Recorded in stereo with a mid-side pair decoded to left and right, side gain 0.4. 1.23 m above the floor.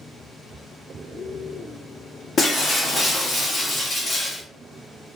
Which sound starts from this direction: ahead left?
Breaking glass, at 2.4 s.